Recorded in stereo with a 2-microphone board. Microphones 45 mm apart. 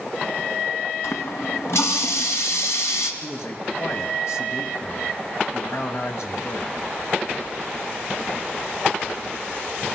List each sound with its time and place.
1.0 s a running tap: 80° left, 2.5 m
3.2 s a man speaking: 75° left (ahead or behind), 2.5 m